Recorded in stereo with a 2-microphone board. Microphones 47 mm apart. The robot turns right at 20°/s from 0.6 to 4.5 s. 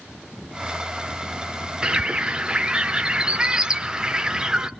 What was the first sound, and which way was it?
A bird, 15° right (ahead or behind).